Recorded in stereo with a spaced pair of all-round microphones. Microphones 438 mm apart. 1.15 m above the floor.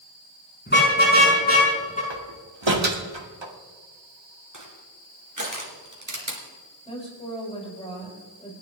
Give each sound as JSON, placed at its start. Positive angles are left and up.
{"t": 0.7, "sound": "a car horn", "side_deg": 25, "distance_m": 6.0}
{"t": 2.1, "sound": "a door slam", "side_deg": -80, "distance_m": 2.0}
{"t": 4.5, "sound": "crushing", "side_deg": -45, "distance_m": 3.5}
{"t": 6.8, "sound": "a woman speaking", "side_deg": 15, "distance_m": 6.5}